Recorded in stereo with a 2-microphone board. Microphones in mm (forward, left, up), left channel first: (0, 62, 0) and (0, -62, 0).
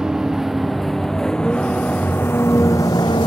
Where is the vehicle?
5° right (ahead or behind); by 3.3 s 40° left (ahead or behind).